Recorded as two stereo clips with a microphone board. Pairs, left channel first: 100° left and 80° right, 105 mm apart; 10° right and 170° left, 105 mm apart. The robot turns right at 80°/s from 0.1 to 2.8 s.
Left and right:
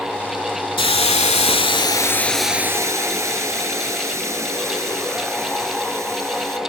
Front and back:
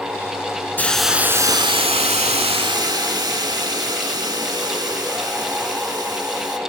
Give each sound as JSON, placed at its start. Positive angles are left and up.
{"t": 0.8, "sound": "a hiss", "azimuth_deg": 60, "distance_m": 0.7}